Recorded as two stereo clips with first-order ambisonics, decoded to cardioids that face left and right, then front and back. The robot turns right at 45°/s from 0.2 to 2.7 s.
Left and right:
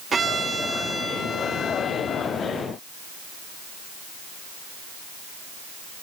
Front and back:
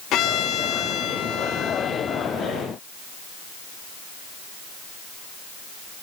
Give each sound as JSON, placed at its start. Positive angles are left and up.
{"t": 0.1, "sound": "a violin", "azimuth_deg": -25, "distance_m": 0.9}